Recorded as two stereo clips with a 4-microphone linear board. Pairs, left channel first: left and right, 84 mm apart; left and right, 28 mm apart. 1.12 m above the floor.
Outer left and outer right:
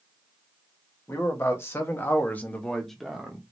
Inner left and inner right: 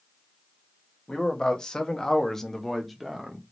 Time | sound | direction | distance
1.1 | a man speaking | 30° left (ahead or behind) | 1.1 m